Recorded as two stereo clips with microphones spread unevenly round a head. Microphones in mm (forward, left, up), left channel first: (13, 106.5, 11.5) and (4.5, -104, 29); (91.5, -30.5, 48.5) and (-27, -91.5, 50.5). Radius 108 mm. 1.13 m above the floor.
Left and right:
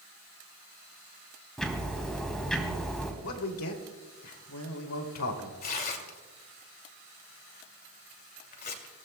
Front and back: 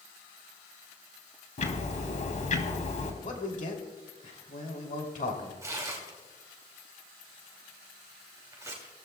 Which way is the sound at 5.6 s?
135° left.